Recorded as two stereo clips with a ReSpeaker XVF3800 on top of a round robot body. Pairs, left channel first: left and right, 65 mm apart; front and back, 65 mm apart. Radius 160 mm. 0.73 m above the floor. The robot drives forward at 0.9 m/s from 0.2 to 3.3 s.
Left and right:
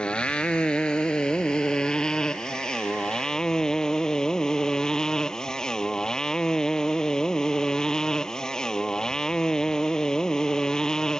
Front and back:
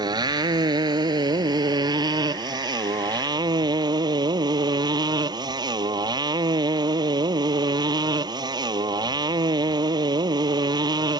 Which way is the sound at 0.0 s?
165° left.